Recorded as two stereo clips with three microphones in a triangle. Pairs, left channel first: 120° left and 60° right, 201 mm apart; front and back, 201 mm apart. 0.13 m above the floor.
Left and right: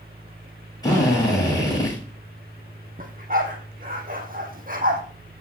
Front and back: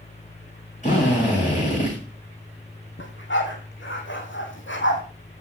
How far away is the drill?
About 9 m.